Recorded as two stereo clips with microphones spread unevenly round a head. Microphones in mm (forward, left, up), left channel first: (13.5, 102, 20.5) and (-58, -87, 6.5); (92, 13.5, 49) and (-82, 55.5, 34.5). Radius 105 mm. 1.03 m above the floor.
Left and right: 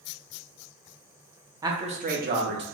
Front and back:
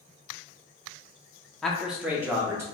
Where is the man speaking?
110° right, 0.6 m; by 2.6 s 125° right, 1.1 m.